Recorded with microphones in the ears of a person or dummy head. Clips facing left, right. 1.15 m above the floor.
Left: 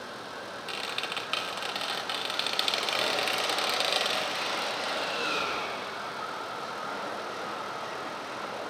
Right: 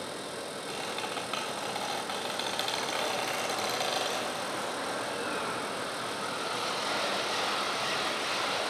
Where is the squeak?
40° left (ahead or behind), 1.2 m.